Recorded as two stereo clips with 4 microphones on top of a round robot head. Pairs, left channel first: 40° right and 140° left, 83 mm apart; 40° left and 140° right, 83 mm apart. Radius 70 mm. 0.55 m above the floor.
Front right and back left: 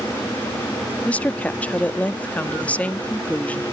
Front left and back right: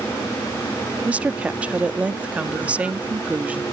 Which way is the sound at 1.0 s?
85° right.